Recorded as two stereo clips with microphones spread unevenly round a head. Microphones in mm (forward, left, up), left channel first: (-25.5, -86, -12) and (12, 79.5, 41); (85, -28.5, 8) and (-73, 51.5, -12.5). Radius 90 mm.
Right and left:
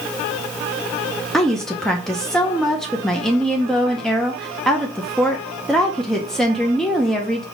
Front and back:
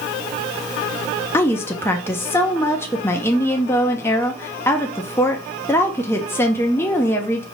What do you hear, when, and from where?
1.3 s a woman speaking: 20° left, 0.5 m